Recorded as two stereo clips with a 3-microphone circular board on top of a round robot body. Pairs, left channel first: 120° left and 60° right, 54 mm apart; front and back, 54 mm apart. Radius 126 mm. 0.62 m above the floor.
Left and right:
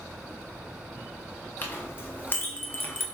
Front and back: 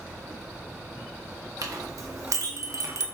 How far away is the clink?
About 0.9 m.